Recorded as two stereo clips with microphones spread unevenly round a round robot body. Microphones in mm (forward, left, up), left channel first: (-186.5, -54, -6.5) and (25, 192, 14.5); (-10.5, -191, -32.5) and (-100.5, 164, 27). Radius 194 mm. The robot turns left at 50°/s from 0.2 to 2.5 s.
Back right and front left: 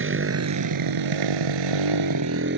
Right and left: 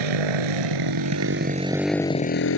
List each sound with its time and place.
0.0 s a motorcycle: 100° left; by 2.6 s 15° right